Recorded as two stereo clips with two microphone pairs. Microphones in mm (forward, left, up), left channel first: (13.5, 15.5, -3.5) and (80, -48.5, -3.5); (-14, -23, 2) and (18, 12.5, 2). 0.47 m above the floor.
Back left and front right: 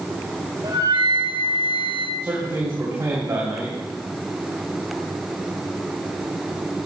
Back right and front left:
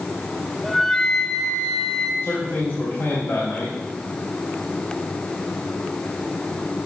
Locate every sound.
0.6 s a flute: 50° right, 1.0 m
2.2 s a man speaking: 100° right, 3.5 m